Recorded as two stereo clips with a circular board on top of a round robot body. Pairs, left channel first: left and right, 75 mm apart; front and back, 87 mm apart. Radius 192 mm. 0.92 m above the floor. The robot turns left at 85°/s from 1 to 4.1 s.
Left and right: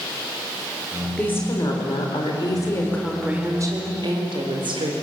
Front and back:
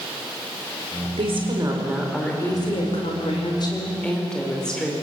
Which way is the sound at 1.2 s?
165° left.